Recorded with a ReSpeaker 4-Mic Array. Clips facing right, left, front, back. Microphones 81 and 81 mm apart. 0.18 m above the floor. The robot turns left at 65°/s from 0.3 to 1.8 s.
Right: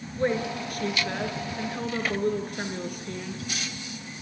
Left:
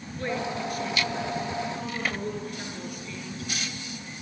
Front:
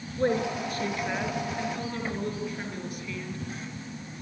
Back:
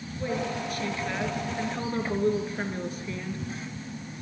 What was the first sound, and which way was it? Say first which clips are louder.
A woman speaking: right 3 dB, front 4 dB; 30° right.